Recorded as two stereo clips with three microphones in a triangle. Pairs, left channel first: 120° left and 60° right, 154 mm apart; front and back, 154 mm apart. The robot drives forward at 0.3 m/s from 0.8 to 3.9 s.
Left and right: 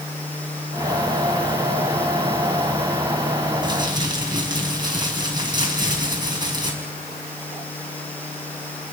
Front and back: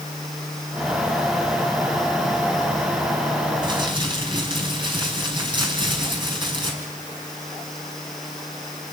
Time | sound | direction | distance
3.6 | crumpling | 120° right | 5 m